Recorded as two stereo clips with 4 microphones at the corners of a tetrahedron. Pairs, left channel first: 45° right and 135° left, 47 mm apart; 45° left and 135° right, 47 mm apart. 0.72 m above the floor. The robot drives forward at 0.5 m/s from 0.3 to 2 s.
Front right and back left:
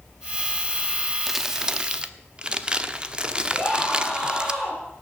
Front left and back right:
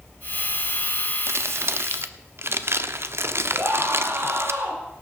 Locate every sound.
1.3 s crumpling: 140° right, 0.5 m; by 4.5 s 155° right, 0.8 m
3.5 s a scream: 125° right, 10 m